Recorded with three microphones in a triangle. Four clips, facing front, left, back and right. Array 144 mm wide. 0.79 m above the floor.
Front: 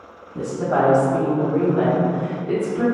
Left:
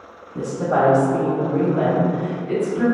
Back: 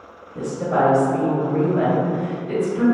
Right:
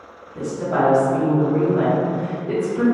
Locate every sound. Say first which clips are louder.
0.3 s a woman speaking: left 2 dB, even; 65° left, 1.1 m; by 2.8 s 85° right, 1.0 m